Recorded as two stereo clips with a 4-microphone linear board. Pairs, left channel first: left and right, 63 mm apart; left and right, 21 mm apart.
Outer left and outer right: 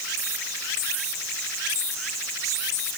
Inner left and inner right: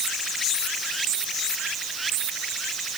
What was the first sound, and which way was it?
Only background noise.